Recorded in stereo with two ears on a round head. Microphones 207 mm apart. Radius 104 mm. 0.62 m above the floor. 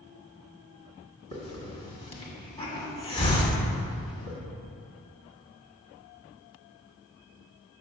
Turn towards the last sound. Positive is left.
turn(degrees=25)  # may be behind; listen again after turning